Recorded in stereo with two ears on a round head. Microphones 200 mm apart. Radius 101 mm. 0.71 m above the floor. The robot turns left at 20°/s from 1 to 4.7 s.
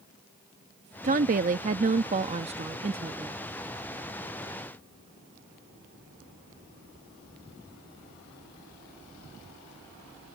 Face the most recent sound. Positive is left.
turn(degrees=-170)